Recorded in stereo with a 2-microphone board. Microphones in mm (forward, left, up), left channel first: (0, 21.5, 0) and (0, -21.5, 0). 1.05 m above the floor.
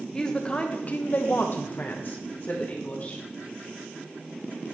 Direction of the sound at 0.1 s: 15° left (ahead or behind).